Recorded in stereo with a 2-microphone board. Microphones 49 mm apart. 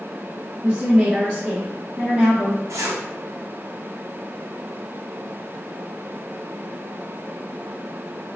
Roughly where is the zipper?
Right.